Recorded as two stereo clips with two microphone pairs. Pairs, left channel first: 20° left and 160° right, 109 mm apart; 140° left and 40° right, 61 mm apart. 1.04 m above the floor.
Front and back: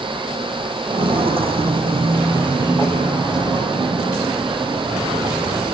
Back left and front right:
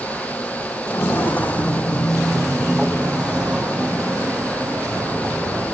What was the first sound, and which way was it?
Footsteps, straight behind.